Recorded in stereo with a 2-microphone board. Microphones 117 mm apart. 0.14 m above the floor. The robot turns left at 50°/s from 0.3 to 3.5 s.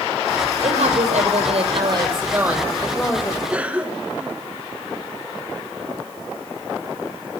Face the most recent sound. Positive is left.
turn(degrees=-10)  # may be behind; listen again after turning